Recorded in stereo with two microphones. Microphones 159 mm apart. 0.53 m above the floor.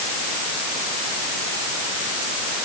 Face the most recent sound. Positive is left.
No sound to turn to.